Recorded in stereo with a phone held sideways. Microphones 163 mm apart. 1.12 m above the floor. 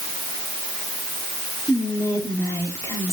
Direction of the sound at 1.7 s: 15° left (ahead or behind).